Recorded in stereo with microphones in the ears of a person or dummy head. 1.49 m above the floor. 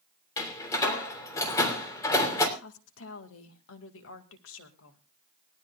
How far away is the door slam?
About 3 m.